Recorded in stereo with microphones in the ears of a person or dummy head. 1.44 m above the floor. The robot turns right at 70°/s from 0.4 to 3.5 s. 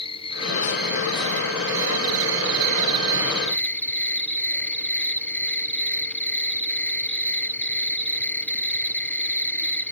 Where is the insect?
150° left; by 9.9 s 10° left.